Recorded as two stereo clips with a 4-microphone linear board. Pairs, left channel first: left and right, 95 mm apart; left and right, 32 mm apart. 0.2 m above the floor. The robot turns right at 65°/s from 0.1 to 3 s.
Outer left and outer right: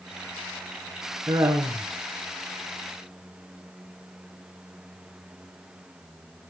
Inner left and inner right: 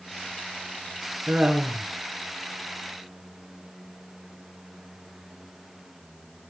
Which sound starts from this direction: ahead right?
Laughter, at 1.3 s.